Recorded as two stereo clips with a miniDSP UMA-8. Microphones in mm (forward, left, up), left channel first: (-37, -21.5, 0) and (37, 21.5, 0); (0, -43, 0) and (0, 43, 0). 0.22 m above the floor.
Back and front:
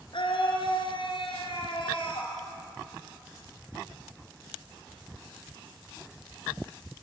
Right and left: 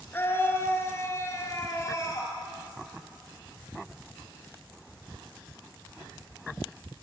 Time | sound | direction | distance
0.1 | a scream | 155° right | 3 m